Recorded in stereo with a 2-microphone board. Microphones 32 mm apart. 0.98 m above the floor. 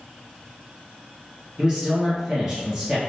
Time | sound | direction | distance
1.6 | a man speaking | 20° right (ahead or behind) | 1.0 m